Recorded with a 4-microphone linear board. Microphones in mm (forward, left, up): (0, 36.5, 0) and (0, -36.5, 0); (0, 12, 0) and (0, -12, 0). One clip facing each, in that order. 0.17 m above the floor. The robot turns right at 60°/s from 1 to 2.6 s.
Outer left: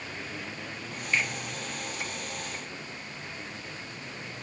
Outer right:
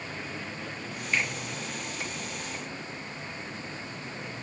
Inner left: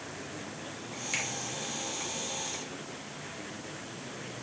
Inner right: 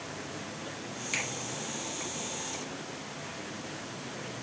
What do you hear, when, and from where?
1.1 s a finger snap: 10° right (ahead or behind), 1.3 m; by 1.3 s 5° right (ahead or behind), 1.3 m